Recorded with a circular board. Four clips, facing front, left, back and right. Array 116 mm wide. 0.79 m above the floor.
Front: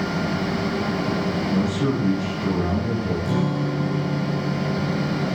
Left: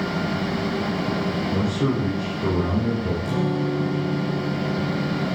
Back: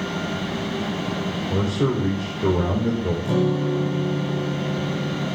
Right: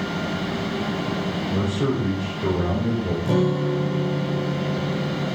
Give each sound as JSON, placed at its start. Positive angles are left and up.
{"t": 1.5, "sound": "a man speaking", "azimuth_deg": -175, "distance_m": 3.5}
{"t": 3.2, "sound": "a guitar", "azimuth_deg": -115, "distance_m": 4.0}